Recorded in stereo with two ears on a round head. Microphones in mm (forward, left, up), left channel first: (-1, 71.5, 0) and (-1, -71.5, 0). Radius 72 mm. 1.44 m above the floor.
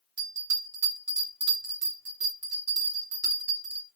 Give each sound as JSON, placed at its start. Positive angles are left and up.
{"t": 0.2, "sound": "a bell", "side_deg": -85, "distance_m": 2.0}